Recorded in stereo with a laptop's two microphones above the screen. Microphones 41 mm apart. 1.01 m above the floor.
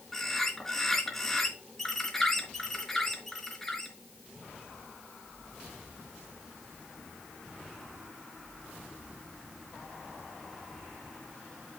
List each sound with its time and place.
0.1 s a bird: 5° left (ahead or behind), 3.5 m